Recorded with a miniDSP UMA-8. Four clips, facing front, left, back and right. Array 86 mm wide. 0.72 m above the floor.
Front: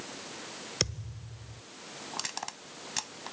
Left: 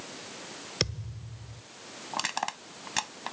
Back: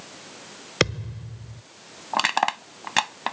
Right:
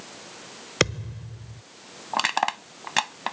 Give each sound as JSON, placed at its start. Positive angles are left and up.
{"t": 0.8, "sound": "a thud", "azimuth_deg": -140}
{"t": 2.1, "sound": "crushing", "azimuth_deg": -150}